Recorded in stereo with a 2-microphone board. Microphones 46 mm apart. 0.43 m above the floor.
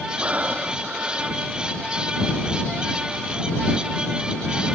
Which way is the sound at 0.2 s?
30° right (ahead or behind).